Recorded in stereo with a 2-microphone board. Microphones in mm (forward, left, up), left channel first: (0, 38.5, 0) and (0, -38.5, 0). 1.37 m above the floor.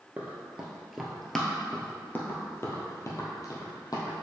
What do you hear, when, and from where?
0.2 s running footsteps: 20° right (ahead or behind), 1.4 m; by 4.1 s 50° left (ahead or behind), 2 m